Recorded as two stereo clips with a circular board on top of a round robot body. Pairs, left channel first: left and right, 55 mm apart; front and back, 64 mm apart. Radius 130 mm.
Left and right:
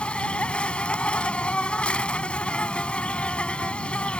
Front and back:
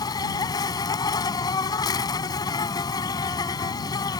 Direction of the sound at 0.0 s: 20° left.